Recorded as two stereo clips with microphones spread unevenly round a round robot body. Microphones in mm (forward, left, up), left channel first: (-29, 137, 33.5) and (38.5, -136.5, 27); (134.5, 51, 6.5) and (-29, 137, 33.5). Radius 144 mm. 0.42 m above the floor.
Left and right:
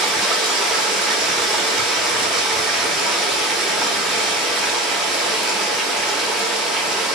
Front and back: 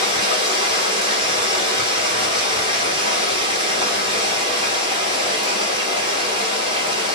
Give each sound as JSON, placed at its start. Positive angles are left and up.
{"t": 0.0, "sound": "running water", "azimuth_deg": -160, "distance_m": 0.9}